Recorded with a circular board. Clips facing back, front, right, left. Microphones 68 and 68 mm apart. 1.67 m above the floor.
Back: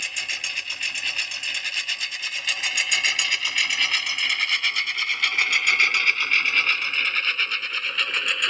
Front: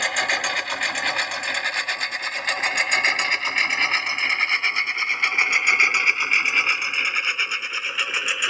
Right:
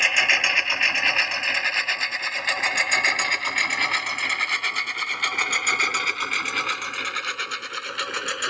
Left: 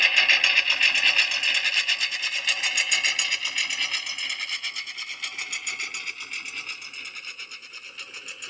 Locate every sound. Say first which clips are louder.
0.0 s a lawn mower: front 10 dB, right 1 dB; 20° right; by 8.5 s 85° right